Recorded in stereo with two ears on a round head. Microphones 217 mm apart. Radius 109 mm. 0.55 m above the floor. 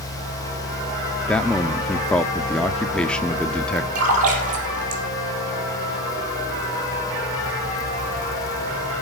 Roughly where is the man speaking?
Centre.